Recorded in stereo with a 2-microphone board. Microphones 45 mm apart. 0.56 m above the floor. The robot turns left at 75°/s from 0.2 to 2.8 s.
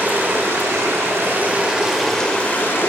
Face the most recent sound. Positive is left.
turn(degrees=125)